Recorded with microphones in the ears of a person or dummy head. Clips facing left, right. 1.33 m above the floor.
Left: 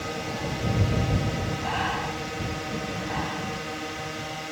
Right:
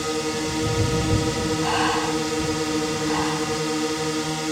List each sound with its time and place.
0.0 s a drone: 60° right (ahead or behind)
1.6 s breathing: 65° right (ahead or behind)